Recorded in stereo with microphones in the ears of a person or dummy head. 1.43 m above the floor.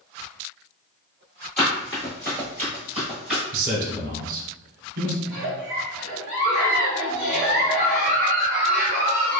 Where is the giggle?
50° right (ahead or behind), 1.0 m.